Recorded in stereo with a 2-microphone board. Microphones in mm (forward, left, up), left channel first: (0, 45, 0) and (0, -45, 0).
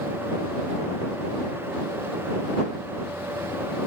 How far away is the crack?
No crack in this recording.